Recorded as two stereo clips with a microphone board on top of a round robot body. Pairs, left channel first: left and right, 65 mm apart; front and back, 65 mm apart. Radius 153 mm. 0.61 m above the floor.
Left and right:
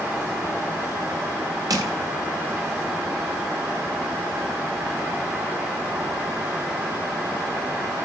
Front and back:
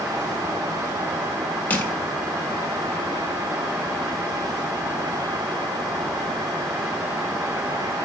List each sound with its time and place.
1.7 s crushing: 65° right, 1.3 m